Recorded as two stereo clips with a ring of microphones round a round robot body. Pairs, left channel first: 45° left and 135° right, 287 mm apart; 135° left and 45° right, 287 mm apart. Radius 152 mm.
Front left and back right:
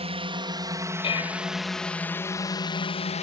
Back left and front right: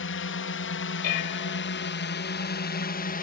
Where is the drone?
160° left; by 3.2 s 95° left.